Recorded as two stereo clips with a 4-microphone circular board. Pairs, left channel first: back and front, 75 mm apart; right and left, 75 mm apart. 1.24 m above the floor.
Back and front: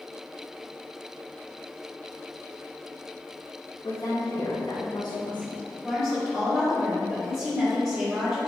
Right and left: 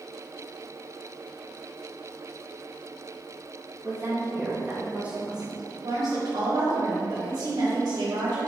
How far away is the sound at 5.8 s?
About 2 m.